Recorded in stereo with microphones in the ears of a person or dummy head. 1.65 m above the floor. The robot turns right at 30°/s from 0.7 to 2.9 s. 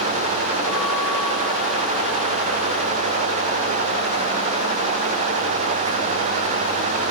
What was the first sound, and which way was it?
Only background noise.